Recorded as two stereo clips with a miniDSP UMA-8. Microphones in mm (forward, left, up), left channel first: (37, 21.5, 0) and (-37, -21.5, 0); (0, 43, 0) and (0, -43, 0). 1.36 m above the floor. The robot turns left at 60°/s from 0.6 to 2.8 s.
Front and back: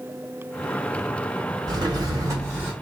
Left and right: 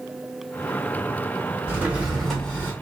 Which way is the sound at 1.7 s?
145° right.